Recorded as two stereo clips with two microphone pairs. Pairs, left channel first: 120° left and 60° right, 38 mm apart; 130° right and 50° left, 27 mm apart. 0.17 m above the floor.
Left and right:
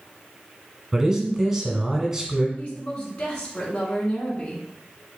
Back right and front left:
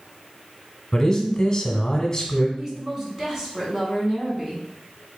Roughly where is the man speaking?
Behind right.